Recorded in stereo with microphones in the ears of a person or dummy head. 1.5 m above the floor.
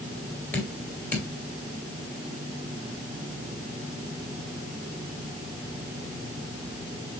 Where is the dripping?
10° left (ahead or behind), 3 m.